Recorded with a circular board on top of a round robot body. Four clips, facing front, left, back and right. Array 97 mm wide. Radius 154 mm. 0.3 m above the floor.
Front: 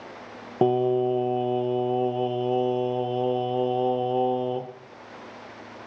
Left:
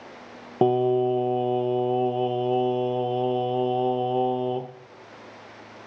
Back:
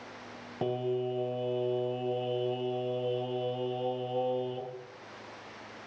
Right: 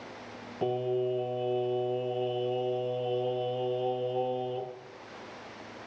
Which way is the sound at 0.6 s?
50° left.